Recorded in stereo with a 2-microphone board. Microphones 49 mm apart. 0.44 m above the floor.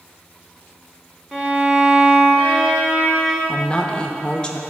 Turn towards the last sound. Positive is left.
turn(degrees=20)  # may be behind; listen again after turning